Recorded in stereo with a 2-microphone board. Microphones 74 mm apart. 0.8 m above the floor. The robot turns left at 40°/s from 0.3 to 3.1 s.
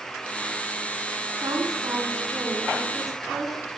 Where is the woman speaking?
110° right, 9.5 m; by 3.6 s 175° right, 9.5 m.